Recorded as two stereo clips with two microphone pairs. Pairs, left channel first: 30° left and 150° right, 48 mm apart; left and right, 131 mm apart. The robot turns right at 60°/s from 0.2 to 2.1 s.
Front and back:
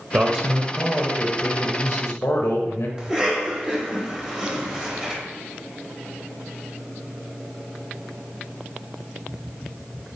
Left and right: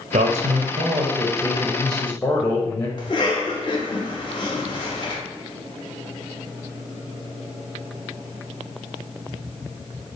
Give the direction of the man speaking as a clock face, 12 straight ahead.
3 o'clock.